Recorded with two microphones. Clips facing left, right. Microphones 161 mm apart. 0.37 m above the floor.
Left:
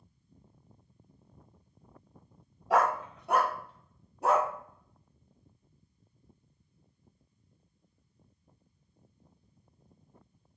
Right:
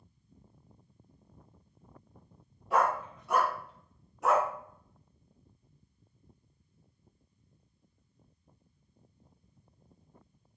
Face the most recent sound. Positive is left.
turn(degrees=30)  # may be behind; listen again after turning